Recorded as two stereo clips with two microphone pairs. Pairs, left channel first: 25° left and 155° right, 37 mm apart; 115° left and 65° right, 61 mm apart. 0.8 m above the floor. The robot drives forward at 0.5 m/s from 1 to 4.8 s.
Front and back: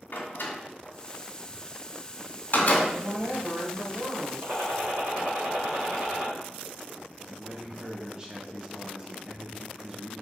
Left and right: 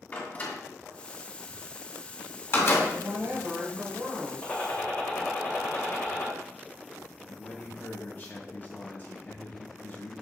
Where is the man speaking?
150° left, 1.0 m.